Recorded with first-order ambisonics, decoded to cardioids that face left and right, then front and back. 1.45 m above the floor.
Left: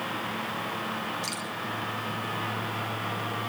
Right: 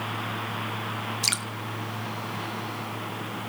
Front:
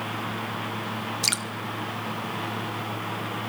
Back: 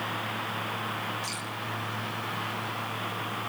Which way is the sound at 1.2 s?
35° right.